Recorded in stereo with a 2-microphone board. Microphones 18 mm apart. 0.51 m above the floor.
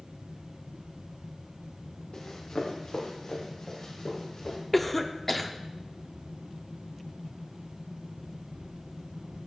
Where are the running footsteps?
65° left (ahead or behind), 2.5 m; by 4.6 s 55° left (ahead or behind), 6 m.